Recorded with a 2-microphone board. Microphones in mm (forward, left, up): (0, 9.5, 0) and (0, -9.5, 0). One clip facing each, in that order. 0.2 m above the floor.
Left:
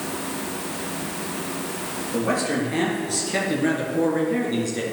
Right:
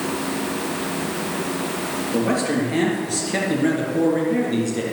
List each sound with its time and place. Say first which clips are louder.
2.1 s a man speaking: right 2 dB; 10° right (ahead or behind), 4 m; by 4.8 s 5° left (ahead or behind), 3 m